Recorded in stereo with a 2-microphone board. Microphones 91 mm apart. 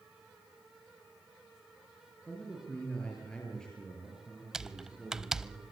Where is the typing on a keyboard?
5° right (ahead or behind), 0.5 m.